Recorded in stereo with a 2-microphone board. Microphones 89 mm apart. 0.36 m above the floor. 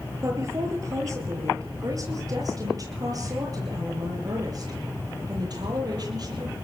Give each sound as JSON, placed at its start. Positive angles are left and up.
{"t": 0.2, "sound": "a woman speaking", "side_deg": -35, "distance_m": 8.5}